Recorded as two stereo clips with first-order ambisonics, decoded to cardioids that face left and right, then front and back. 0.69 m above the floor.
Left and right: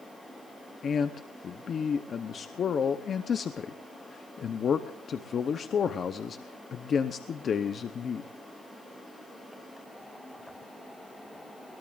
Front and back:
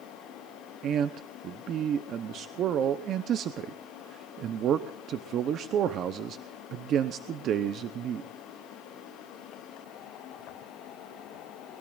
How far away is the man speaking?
About 0.7 m.